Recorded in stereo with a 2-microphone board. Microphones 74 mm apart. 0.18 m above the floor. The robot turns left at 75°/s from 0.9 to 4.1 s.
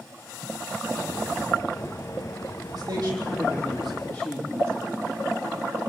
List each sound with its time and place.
2.7 s a man speaking: 95° right, 7 m; by 5.1 s 160° left, 7 m